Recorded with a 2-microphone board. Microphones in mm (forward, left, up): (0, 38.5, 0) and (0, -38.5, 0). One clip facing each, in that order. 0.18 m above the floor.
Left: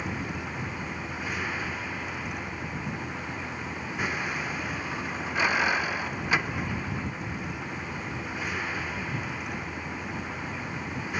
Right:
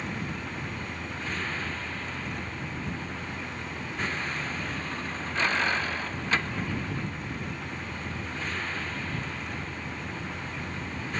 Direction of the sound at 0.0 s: 10° left (ahead or behind).